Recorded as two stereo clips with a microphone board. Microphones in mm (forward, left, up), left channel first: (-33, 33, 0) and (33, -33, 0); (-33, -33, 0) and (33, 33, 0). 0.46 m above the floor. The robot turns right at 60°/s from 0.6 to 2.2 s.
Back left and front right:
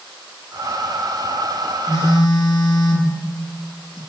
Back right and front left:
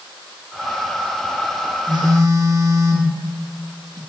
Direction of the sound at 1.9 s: 75° left.